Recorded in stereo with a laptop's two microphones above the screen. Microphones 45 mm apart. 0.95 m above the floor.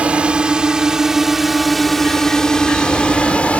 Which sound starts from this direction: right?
A drone, at 0.0 s.